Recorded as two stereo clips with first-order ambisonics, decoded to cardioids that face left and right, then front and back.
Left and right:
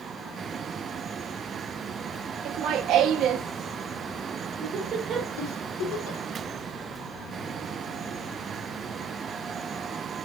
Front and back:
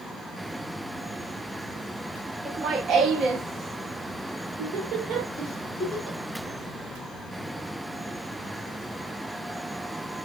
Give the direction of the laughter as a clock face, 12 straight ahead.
4 o'clock.